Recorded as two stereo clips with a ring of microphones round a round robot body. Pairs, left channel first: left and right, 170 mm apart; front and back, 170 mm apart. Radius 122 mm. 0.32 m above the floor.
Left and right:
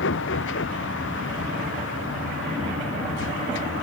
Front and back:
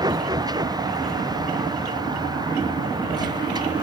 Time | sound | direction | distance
0.0 | a vehicle | 115° left | ?